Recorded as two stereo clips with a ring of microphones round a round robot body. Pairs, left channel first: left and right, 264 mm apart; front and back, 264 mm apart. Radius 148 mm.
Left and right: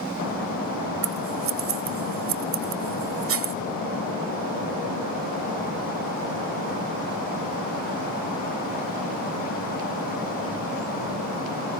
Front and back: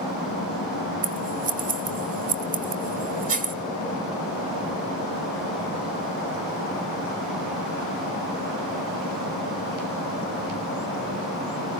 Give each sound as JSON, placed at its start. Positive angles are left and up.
{"t": 1.0, "sound": "scissors", "azimuth_deg": -120, "distance_m": 1.3}